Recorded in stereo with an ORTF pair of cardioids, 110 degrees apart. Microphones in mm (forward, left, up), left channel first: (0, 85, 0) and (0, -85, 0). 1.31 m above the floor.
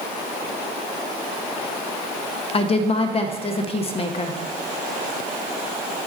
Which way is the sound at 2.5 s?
35° left.